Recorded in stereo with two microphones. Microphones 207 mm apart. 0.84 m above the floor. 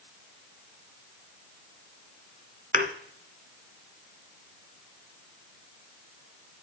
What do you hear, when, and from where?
2.7 s a thud: 40° right (ahead or behind), 1.3 m